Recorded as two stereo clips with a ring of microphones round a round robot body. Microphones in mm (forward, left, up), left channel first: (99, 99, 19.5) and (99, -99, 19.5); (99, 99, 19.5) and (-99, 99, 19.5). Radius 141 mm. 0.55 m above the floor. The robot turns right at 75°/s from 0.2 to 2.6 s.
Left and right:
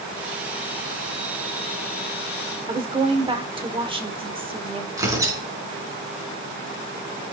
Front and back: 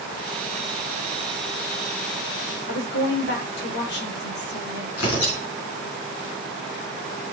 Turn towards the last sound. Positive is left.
turn(degrees=-15)